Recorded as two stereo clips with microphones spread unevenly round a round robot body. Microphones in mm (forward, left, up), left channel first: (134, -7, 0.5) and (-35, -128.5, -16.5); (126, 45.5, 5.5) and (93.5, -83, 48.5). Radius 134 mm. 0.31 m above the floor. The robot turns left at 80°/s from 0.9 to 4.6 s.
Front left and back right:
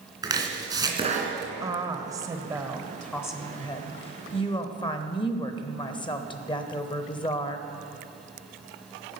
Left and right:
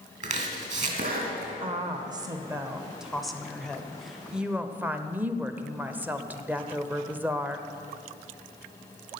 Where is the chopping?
75° right, 2.5 m; by 1.5 s 125° right, 2.5 m.